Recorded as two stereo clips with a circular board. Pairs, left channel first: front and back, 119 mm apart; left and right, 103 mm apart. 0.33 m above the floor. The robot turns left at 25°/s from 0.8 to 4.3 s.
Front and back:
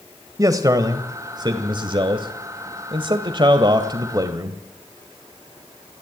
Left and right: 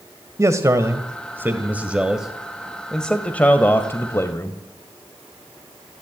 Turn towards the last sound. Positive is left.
turn(degrees=135)